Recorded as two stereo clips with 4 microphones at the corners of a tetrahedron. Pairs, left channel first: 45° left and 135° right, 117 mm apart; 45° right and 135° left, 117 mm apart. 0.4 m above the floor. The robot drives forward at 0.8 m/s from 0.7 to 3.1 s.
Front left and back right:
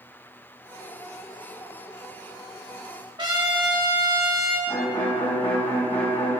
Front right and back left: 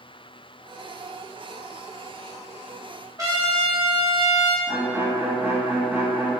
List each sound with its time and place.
3.2 s a trumpet: 175° right, 2.0 m
4.7 s a violin: 65° left, 1.8 m